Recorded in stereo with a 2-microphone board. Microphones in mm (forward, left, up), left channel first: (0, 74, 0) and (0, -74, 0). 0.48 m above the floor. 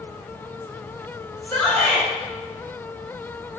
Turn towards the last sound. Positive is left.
turn(degrees=15)  # may be behind; listen again after turning